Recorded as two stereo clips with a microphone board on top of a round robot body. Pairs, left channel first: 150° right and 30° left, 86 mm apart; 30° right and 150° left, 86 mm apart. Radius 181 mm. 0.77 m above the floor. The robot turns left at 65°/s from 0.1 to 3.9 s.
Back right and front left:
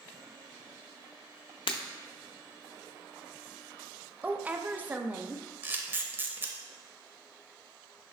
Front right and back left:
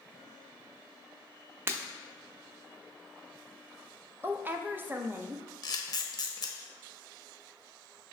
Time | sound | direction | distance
1.7 | breaking glass | 150° right | 0.6 m
4.2 | a woman speaking | 95° left | 0.7 m
5.6 | a camera shutter | 30° right | 0.9 m